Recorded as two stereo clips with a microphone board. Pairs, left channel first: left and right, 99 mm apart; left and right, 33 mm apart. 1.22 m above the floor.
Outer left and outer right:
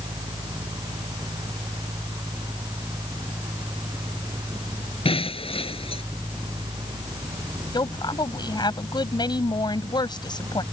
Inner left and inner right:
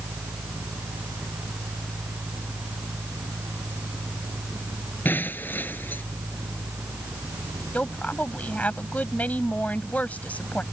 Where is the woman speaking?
50° left (ahead or behind).